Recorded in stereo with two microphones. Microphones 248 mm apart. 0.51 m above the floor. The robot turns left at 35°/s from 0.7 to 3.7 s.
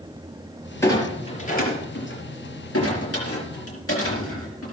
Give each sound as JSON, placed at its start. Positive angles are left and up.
{"t": 0.8, "sound": "a clunk", "side_deg": 10, "distance_m": 5.0}